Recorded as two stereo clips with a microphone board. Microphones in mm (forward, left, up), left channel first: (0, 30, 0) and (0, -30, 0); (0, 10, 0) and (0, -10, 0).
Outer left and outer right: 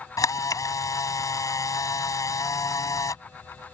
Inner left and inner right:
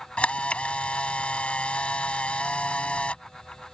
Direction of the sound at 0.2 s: 75° left (ahead or behind).